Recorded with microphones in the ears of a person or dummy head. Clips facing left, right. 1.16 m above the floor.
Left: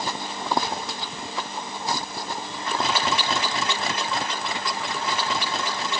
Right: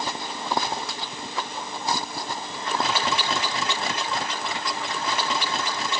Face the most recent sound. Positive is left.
No sound to turn to.